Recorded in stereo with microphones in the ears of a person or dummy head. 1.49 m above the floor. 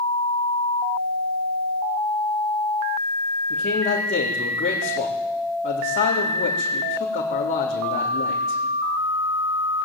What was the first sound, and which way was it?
A man speaking, 40° left (ahead or behind).